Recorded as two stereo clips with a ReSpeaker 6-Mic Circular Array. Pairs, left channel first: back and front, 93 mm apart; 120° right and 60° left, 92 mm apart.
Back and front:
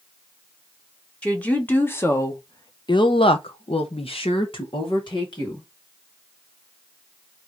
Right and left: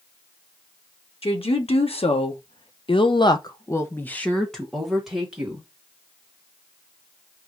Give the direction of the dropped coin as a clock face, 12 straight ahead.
I don't hear a dropped coin.